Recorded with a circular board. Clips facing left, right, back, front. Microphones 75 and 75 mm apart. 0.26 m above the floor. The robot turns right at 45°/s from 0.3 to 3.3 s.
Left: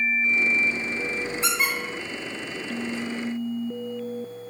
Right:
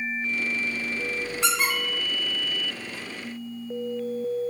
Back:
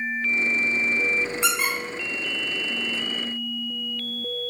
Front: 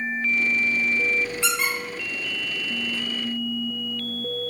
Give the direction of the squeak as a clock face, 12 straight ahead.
4 o'clock.